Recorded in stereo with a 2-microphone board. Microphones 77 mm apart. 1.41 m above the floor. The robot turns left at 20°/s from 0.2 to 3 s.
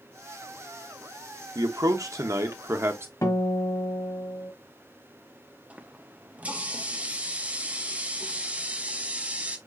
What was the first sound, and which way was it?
A man speaking, 60° right (ahead or behind).